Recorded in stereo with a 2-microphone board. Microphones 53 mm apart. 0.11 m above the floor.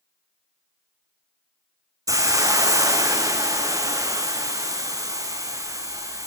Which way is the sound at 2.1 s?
80° right.